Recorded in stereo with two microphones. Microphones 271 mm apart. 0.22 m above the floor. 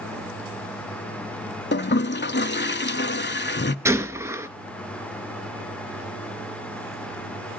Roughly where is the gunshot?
Centre.